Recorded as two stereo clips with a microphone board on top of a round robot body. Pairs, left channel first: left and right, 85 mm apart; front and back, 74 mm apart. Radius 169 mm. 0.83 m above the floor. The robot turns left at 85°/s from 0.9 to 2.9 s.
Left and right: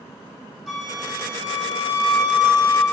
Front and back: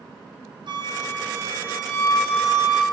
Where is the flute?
Straight behind, 2.5 m; by 2.8 s 15° left, 2.5 m.